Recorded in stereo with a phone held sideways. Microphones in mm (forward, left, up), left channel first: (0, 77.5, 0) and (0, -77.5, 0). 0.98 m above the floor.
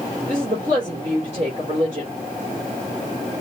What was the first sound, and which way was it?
A woman speaking, 50° right (ahead or behind).